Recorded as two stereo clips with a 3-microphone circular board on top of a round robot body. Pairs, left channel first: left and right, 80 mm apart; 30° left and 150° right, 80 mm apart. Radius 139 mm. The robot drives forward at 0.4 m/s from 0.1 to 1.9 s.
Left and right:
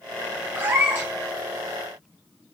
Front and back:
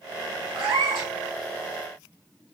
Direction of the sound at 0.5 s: 155° right.